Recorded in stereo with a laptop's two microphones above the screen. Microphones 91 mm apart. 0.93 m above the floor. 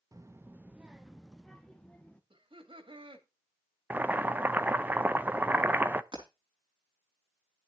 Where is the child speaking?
40° right (ahead or behind), 0.6 m; by 2.2 s 10° left (ahead or behind), 1.4 m.